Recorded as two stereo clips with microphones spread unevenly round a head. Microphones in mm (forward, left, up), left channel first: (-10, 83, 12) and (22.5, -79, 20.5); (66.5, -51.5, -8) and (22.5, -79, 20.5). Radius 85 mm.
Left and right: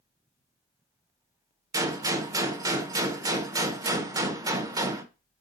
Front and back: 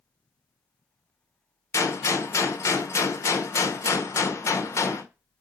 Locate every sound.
1.7 s a gunshot: 10° right, 1.0 m